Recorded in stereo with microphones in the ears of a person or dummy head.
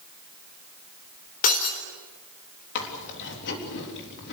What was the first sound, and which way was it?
Breaking glass, 45° left (ahead or behind).